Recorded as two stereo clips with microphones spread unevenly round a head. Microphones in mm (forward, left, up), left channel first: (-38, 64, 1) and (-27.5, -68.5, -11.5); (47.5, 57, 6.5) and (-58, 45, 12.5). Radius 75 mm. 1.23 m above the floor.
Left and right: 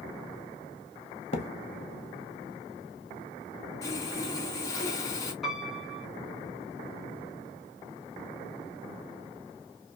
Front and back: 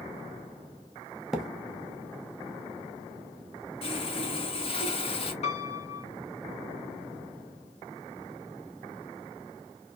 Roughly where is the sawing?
Ahead left.